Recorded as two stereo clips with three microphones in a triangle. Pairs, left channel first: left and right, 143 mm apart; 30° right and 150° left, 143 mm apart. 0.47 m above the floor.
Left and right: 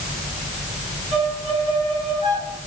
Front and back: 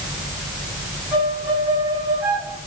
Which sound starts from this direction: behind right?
A violin, at 1.1 s.